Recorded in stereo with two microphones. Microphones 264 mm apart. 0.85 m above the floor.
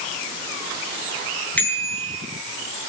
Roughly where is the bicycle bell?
Centre.